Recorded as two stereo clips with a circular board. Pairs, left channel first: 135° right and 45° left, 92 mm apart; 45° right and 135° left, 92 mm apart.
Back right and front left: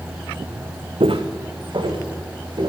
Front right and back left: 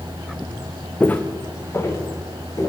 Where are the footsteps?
30° left, 0.8 m; by 2.7 s 10° left, 3 m.